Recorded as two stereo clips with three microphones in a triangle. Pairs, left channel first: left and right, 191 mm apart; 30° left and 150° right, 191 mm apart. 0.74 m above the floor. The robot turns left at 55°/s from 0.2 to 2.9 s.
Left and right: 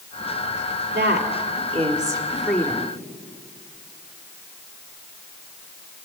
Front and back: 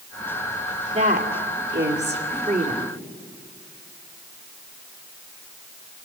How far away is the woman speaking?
About 1.9 m.